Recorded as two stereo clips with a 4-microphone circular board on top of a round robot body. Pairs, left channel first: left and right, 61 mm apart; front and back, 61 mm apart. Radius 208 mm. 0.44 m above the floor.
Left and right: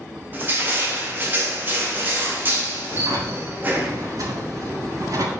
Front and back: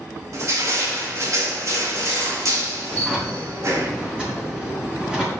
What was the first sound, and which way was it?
Crushing, 150° right.